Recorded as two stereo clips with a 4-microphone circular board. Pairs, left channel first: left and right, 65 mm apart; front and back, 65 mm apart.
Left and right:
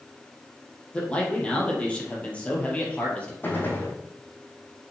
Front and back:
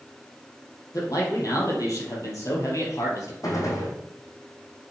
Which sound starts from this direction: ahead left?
A gunshot, at 3.4 s.